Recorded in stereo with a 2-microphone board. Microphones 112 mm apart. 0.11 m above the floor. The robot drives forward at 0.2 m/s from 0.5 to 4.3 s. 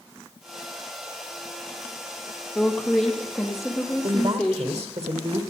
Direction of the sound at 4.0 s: 60° right (ahead or behind).